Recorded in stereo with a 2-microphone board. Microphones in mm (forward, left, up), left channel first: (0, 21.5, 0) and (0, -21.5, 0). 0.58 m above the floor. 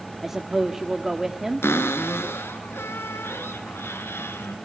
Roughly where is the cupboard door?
Left.